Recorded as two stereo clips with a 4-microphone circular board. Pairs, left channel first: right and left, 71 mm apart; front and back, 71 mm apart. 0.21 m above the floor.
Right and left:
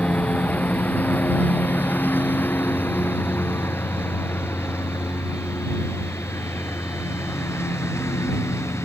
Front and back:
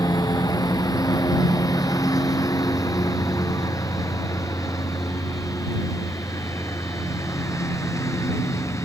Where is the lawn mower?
25° right; by 8.9 s 45° right.